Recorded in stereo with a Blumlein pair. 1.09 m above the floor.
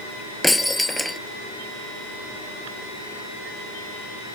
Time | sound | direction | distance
0.4 | breaking glass | 5° left | ?